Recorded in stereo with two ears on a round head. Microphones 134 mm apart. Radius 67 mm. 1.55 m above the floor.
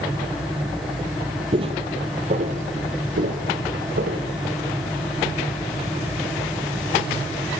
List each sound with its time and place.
1.5 s footsteps: 35° right (ahead or behind), 2.0 m; by 4.2 s 65° right (ahead or behind), 3.5 m